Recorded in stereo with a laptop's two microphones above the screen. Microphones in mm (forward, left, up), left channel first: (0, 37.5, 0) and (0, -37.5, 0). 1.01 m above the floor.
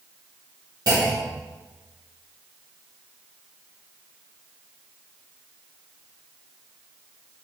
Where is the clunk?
65° right (ahead or behind), 1.3 m.